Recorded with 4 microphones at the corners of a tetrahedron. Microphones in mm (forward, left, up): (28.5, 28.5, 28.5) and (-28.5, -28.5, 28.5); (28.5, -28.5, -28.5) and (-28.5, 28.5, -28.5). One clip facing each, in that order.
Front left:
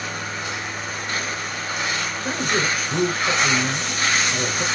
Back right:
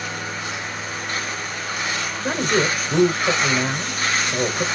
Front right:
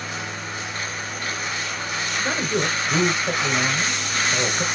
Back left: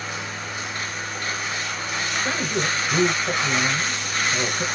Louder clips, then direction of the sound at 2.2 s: Back right 4 dB, front right 2 dB; 100° right.